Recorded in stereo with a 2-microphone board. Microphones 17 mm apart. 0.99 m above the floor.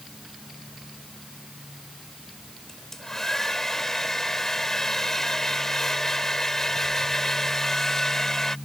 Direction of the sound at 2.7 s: 25° left (ahead or behind).